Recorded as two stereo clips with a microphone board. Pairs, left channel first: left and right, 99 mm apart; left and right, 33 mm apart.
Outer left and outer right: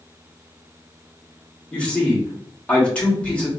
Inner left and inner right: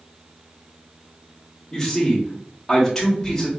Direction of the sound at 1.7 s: 10° left (ahead or behind).